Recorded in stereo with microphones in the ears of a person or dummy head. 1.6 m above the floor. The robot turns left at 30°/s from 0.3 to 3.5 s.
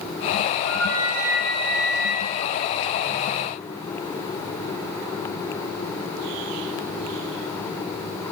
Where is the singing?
No singing in this recording.